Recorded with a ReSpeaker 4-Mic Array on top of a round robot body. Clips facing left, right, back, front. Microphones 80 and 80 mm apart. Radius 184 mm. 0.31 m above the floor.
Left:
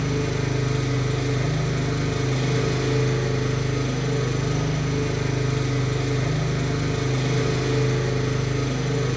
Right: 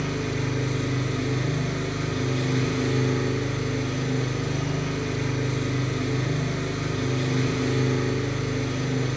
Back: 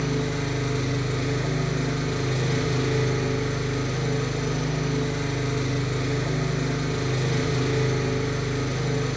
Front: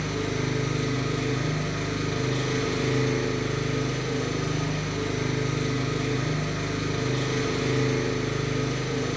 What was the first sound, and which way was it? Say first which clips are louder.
An engine running: left 3 dB, back 2 dB; 115° left.